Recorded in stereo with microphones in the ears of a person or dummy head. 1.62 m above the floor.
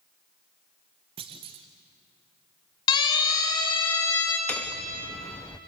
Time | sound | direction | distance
1.2 | a clunk | 25° right (ahead or behind) | 1.1 m
2.9 | a siren | 30° left (ahead or behind) | 3.5 m
4.5 | hammering | 5° left (ahead or behind) | 0.7 m